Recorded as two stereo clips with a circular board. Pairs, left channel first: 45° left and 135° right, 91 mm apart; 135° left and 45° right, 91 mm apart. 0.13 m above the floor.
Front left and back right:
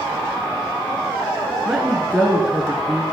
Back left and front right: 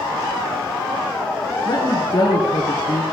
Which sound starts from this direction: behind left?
A woman speaking, at 1.6 s.